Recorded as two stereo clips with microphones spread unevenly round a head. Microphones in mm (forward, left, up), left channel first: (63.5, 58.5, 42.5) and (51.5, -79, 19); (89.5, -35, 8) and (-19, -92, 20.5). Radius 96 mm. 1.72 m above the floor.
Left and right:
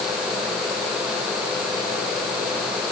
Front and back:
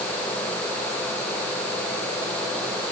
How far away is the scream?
I don't hear a scream.